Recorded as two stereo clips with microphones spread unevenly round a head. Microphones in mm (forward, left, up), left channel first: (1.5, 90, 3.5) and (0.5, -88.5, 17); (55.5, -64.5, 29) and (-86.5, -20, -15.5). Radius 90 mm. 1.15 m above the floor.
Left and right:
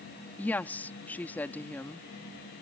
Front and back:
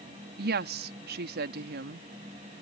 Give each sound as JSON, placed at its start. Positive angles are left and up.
{"t": 0.4, "sound": "a woman speaking", "azimuth_deg": 170}